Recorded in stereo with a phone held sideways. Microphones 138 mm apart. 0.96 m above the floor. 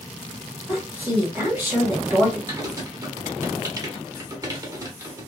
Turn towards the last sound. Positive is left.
turn(degrees=-25)  # may be behind; listen again after turning